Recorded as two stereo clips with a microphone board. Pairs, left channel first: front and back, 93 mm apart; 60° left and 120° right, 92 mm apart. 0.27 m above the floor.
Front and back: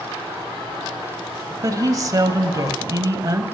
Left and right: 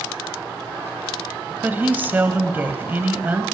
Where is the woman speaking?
175° right, 1.1 m.